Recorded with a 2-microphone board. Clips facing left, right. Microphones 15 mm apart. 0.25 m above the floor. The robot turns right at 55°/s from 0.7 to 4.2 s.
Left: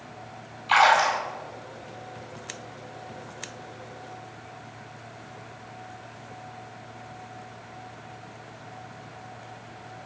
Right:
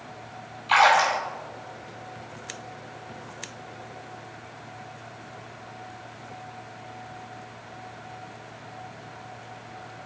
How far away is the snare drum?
No snare drum in this recording.